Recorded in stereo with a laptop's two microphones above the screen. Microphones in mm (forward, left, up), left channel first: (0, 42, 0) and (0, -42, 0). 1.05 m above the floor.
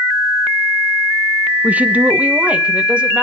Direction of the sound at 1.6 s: 20° right (ahead or behind).